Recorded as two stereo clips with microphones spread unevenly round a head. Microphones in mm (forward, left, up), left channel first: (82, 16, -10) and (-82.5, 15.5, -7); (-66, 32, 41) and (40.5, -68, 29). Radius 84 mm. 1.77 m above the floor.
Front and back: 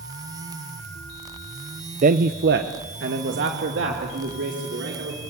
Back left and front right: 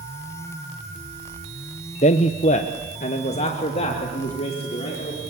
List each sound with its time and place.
2.0 s a man speaking: 160° left, 0.7 m; by 5.2 s straight behind, 5 m